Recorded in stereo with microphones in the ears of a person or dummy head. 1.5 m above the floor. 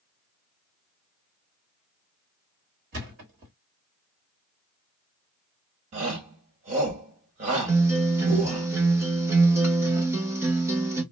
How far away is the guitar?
About 0.9 m.